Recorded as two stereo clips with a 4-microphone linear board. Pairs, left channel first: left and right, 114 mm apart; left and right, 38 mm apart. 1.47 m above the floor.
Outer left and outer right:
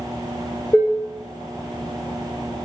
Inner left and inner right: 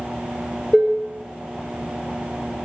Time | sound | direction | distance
0.7 | dishes clattering | 20° left (ahead or behind) | 0.7 m